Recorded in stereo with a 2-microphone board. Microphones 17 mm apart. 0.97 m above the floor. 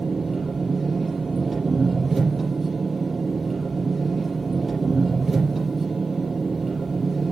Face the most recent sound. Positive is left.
turn(degrees=-10)  # may be behind; listen again after turning